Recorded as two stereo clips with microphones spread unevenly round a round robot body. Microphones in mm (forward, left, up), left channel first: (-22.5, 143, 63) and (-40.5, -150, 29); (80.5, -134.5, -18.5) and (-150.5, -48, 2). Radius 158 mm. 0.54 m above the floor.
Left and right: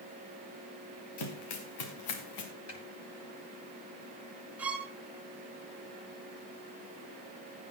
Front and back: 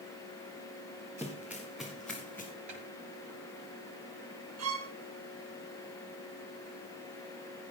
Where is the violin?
Straight behind, 3 m.